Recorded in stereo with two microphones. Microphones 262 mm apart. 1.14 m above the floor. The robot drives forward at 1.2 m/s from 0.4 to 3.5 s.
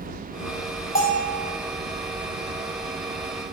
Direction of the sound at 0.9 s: 35° left (ahead or behind).